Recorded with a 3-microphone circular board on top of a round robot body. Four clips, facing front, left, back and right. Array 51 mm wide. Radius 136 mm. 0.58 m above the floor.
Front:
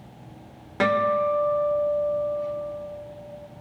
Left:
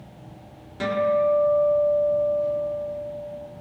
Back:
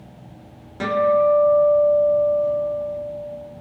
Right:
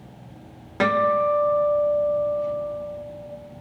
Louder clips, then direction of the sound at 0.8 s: Right 2 dB, back 4 dB; 55° right.